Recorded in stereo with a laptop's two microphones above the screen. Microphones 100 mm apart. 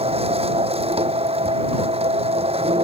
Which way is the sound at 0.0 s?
80° right.